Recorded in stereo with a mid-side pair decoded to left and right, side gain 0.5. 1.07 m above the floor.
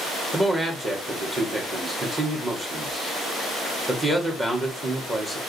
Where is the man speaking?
20° right, 2.0 m.